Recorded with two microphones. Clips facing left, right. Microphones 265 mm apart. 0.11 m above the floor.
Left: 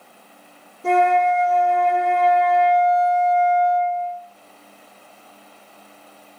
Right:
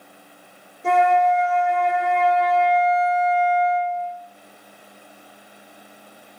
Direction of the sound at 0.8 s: 40° left (ahead or behind).